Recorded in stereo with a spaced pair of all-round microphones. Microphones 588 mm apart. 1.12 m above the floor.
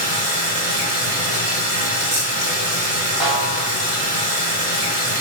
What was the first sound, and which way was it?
Running water, 50° right (ahead or behind).